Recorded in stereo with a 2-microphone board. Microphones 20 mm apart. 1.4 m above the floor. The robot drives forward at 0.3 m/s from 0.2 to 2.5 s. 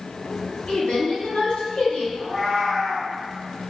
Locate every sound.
0.7 s a woman speaking: 60° left (ahead or behind), 1.4 m; by 2.0 s 75° left (ahead or behind), 1.3 m
2.1 s a cat meowing: 10° left (ahead or behind), 1.6 m